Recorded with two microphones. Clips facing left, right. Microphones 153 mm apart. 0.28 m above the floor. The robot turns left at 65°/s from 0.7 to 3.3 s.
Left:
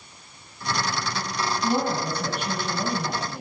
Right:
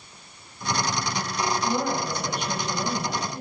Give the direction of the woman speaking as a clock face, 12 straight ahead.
8 o'clock.